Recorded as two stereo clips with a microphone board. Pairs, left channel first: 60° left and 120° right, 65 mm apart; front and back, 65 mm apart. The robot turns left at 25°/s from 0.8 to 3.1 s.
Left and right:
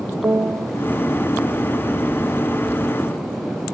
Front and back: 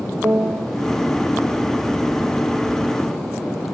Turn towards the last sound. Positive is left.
turn(degrees=155)